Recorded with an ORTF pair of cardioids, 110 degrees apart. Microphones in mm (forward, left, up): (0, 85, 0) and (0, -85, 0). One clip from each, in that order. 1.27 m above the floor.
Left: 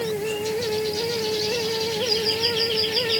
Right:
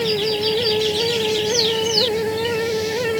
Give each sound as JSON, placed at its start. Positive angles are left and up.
{"t": 0.0, "sound": "a fan", "azimuth_deg": -35}